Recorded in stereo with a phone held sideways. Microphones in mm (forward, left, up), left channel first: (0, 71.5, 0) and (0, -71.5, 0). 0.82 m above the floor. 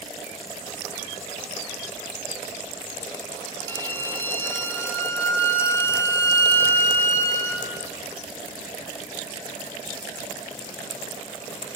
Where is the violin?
15° left (ahead or behind), 0.5 m.